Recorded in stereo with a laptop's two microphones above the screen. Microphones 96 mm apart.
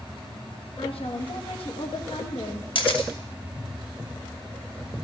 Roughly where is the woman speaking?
Left.